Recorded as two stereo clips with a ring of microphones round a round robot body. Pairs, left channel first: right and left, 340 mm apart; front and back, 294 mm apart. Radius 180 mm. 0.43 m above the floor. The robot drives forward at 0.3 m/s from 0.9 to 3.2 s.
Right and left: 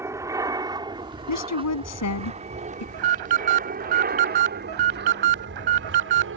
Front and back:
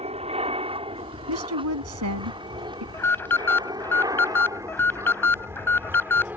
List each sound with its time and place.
0.0 s an aircraft: 160° left; by 6.4 s 100° left
1.3 s a woman speaking: 130° right; by 2.8 s 135° right
2.9 s an alarm: 80° left